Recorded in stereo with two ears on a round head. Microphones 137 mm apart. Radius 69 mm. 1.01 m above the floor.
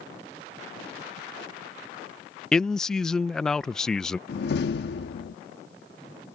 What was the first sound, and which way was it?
A man speaking, 5° left (ahead or behind).